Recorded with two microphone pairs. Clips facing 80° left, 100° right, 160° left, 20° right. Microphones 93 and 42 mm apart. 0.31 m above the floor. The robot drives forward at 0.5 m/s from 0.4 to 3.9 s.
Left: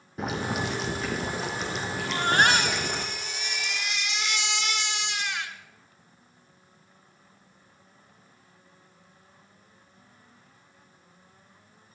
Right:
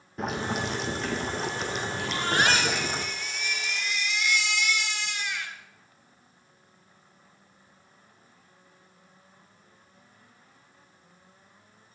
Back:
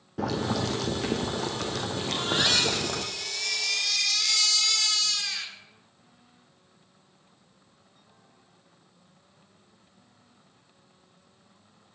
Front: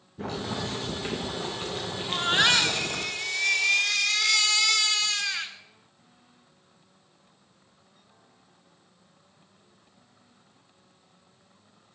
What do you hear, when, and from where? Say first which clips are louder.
0.2 s boiling: even, back 4 dB; 165° left, 3 m; by 3.0 s 170° left, 4 m
2.0 s a baby crying: left 3 dB, front 5 dB; 40° left, 3 m; by 5.5 s 55° left, 2.5 m